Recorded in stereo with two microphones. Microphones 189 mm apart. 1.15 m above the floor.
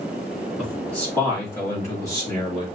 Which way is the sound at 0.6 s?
5° left (ahead or behind).